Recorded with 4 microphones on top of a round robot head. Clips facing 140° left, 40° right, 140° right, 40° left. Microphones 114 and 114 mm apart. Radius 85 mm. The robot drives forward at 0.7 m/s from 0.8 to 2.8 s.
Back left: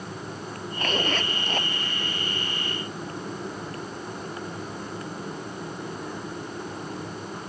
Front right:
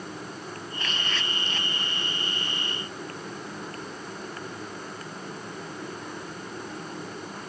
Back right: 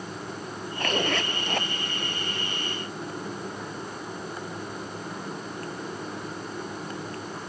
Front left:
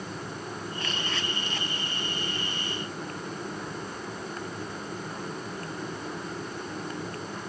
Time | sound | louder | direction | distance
0.8 | a zipper | back left 9 dB, back right 11 dB | 175° right | ?